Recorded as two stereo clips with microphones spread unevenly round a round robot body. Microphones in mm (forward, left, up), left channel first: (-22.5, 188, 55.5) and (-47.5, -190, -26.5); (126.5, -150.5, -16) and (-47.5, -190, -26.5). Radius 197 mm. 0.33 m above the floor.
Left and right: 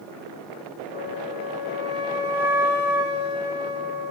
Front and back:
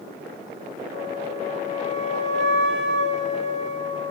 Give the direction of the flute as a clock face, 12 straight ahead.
7 o'clock.